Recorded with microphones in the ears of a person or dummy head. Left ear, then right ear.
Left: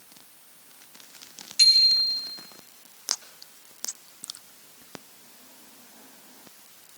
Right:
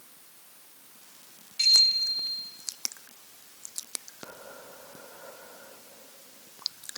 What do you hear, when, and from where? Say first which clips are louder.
1.6 s a bicycle bell: left 3 dB; 30° left (ahead or behind), 5 m